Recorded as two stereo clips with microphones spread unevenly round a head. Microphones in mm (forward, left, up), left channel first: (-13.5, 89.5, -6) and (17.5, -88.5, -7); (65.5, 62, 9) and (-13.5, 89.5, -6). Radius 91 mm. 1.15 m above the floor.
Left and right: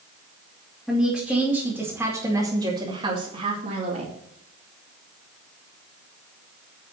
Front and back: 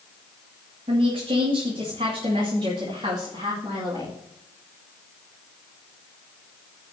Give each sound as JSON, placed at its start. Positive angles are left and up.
{"t": 0.9, "sound": "a woman speaking", "azimuth_deg": -175, "distance_m": 2.5}